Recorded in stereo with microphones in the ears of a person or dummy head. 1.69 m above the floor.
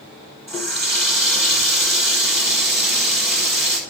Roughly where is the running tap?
Centre.